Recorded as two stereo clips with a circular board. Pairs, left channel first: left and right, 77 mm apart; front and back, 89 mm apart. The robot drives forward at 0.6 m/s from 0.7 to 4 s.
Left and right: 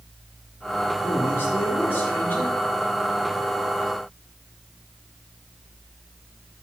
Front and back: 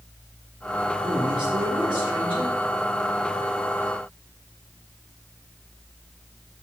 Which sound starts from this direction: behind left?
A man speaking, at 1.0 s.